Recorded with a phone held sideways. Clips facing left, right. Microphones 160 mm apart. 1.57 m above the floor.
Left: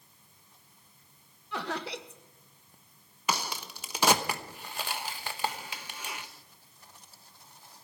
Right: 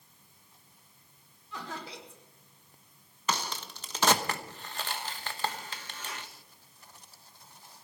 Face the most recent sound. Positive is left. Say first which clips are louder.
# left 1 dB
turn(degrees=10)  # may be behind; listen again after turning